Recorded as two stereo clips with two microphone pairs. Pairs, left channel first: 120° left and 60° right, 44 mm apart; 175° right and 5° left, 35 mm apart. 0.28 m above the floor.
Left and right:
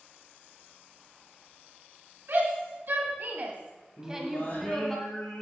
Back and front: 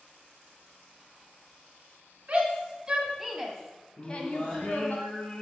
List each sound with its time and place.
2.3 s a shout: 45° right, 2.5 m; by 5.0 s 165° right, 2 m
4.0 s singing: 140° left, 4.5 m